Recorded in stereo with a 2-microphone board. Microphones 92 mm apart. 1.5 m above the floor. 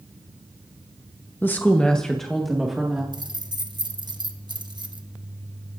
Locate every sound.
1.4 s a woman speaking: 25° left (ahead or behind), 1.0 m; by 3.0 s 5° right (ahead or behind), 2.5 m
3.1 s keys jangling: 55° right (ahead or behind), 1.2 m